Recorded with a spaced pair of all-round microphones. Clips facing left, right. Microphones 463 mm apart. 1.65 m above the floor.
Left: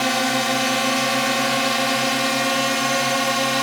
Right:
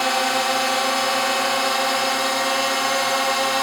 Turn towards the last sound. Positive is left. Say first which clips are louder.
# left 2 dB
turn(degrees=50)  # may be behind; listen again after turning